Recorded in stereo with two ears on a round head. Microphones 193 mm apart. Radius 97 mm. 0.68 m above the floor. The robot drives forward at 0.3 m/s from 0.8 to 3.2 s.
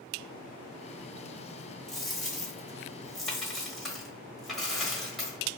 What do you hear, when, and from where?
1.9 s a dropped coin: centre (ahead or behind), 0.8 m